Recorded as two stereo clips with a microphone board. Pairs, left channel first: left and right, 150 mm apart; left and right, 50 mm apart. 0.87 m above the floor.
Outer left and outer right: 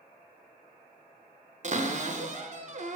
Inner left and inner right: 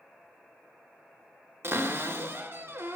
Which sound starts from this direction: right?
A cupboard door, at 1.6 s.